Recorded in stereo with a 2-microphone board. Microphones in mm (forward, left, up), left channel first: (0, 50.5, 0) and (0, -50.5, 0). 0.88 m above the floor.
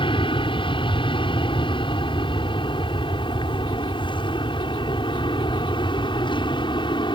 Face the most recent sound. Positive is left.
turn(degrees=50)  # may be behind; listen again after turning